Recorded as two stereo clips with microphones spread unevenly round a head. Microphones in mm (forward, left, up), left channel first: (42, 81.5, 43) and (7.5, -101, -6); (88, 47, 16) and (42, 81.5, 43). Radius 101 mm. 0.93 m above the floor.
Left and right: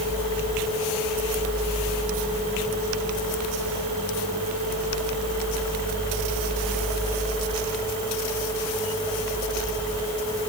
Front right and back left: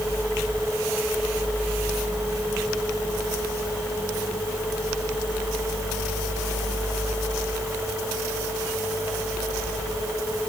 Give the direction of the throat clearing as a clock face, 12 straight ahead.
No throat clearing in this recording.